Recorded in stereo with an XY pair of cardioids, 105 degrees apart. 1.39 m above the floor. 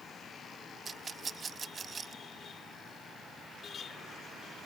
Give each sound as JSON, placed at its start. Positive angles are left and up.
{"t": 0.8, "sound": "a rattle", "azimuth_deg": -40}